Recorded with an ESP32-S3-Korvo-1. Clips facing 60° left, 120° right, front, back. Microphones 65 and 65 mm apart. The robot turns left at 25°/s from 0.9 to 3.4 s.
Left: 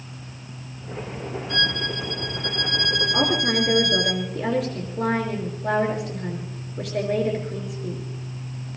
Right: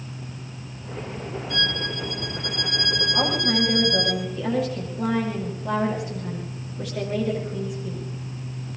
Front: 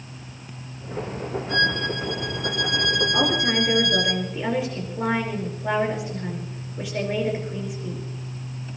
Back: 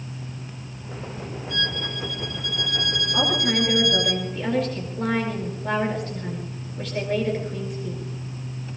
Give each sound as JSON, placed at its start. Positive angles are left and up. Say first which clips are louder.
{"t": 1.5, "sound": "a violin", "louder": "left 2 dB, front 6 dB", "azimuth_deg": 35, "distance_m": 4.0}
{"t": 3.1, "sound": "a woman speaking", "louder": "left 1 dB, back 3 dB", "azimuth_deg": 85, "distance_m": 5.0}